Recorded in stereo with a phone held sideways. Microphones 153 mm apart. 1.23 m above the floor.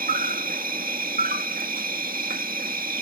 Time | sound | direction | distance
0.0 | an insect | 70° right (ahead or behind) | ?